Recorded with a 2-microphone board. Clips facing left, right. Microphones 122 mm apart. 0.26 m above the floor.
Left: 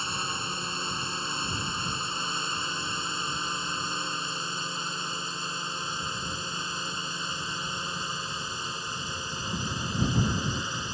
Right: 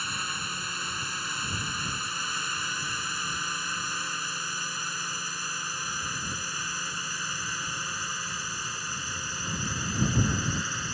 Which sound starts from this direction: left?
A drone, at 0.0 s.